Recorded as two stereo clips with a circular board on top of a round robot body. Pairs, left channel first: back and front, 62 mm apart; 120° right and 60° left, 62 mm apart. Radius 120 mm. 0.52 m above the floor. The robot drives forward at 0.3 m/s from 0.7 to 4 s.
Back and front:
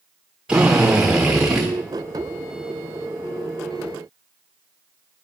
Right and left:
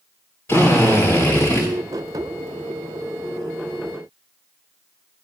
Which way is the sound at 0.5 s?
75° right.